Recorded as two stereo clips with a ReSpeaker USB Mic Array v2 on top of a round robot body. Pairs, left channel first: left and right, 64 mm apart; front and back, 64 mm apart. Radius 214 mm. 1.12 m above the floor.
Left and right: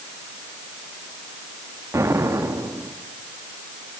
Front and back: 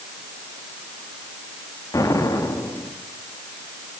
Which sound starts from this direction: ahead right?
An explosion, at 1.9 s.